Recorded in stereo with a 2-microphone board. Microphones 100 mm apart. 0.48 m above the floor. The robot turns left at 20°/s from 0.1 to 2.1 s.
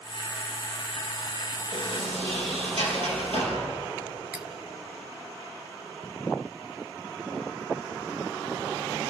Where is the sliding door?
60° right (ahead or behind), 5 m; by 3.6 s 65° right (ahead or behind), 5 m.